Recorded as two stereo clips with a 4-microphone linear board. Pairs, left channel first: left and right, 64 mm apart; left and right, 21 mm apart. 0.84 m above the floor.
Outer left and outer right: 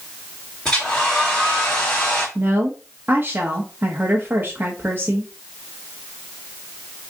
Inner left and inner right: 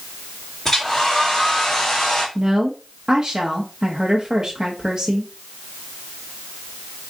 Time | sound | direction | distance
0.7 | a hair dryer | 15° left (ahead or behind) | 2 m
2.4 | a woman speaking | 35° right (ahead or behind) | 0.9 m